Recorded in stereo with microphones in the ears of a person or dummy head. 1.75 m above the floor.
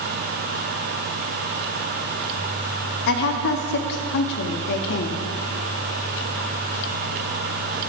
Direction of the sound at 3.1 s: 60° left (ahead or behind).